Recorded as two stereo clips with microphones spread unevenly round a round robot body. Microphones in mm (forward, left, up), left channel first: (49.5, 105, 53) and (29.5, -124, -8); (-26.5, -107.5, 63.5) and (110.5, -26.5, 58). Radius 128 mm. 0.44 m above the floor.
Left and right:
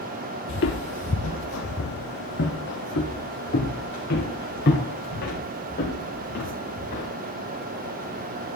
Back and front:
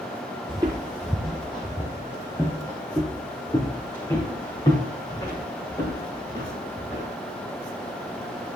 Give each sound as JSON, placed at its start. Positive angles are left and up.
{"t": 0.5, "sound": "footsteps", "azimuth_deg": 100, "distance_m": 0.7}